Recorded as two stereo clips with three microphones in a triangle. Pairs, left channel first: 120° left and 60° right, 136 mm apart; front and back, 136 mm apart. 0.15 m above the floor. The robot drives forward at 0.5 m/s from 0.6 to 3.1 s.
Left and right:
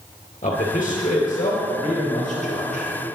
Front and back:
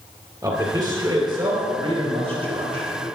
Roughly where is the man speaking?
Behind left.